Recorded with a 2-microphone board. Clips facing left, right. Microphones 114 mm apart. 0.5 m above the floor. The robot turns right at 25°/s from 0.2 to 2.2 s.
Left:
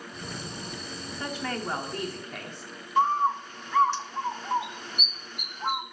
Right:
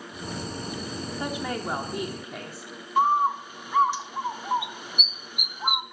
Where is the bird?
10° right (ahead or behind), 0.5 m.